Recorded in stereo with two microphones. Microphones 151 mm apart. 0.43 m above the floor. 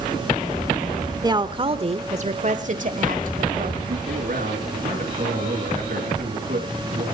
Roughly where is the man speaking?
Right.